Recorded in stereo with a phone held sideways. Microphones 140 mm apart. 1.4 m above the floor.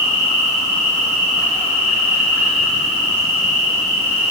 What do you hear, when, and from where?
0.0 s an insect: 15° right (ahead or behind), 5 m